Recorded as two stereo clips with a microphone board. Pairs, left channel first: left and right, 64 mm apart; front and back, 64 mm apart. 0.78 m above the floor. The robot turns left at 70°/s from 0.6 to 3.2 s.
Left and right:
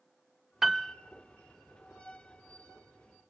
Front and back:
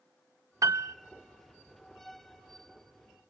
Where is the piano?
170° right, 0.5 m; by 0.9 s 165° left, 0.5 m.